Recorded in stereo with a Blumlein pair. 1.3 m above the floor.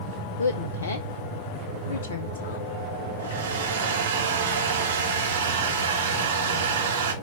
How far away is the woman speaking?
About 0.8 m.